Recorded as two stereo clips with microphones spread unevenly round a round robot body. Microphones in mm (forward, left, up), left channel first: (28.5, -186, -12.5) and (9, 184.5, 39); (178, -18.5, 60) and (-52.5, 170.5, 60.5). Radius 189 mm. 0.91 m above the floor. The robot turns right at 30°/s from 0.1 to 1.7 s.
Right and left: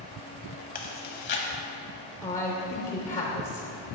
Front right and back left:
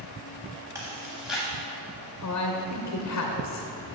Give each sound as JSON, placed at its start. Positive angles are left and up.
{"t": 0.8, "sound": "chewing", "azimuth_deg": -150, "distance_m": 0.7}
{"t": 2.2, "sound": "a man speaking", "azimuth_deg": -25, "distance_m": 0.8}